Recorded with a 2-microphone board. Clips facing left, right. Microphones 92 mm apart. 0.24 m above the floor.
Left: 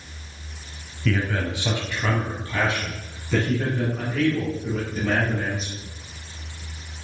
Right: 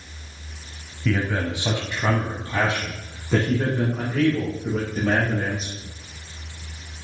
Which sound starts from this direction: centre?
A man speaking, at 1.1 s.